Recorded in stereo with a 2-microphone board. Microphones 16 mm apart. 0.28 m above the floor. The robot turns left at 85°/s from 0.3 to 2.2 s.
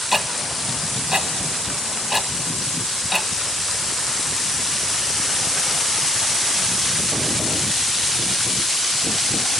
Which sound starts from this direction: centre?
Ticking, at 0.1 s.